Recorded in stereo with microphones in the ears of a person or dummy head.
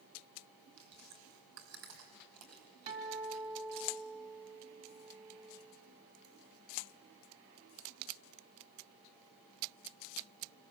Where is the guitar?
40° right (ahead or behind), 3 m.